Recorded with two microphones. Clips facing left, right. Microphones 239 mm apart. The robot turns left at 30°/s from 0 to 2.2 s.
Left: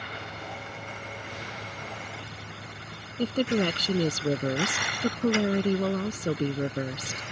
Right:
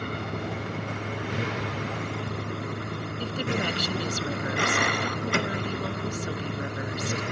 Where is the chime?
I don't hear a chime.